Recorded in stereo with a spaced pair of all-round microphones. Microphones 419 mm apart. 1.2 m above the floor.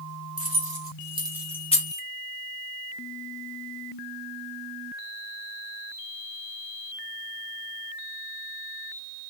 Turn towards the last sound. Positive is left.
turn(degrees=30)  # may be behind; listen again after turning